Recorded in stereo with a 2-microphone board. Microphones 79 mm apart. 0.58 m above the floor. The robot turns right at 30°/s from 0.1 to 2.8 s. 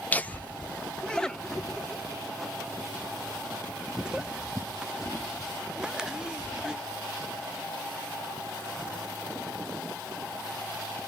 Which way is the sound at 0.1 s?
20° left (ahead or behind).